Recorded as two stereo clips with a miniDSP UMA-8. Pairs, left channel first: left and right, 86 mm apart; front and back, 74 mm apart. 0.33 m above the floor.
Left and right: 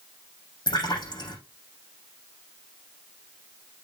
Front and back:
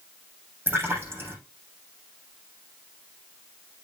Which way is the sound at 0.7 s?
120° left.